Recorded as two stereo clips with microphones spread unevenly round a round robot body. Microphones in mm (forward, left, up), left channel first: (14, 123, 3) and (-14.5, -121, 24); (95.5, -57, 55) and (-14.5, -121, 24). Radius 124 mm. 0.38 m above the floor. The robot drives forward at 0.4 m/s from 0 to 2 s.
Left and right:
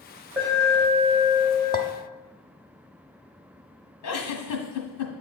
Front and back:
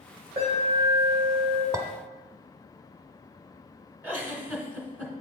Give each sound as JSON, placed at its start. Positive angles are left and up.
{"t": 0.4, "sound": "an alarm", "azimuth_deg": 180, "distance_m": 3.0}
{"t": 1.7, "sound": "a clink", "azimuth_deg": 150, "distance_m": 0.7}
{"t": 4.0, "sound": "a giggle", "azimuth_deg": 105, "distance_m": 1.3}